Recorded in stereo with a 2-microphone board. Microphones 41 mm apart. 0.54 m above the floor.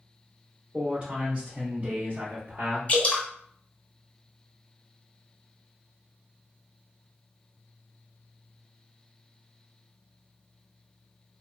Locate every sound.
0.7 s a man speaking: 25° right (ahead or behind), 1.2 m; by 2.8 s 55° right (ahead or behind), 1.1 m
2.9 s dripping: 30° left (ahead or behind), 0.7 m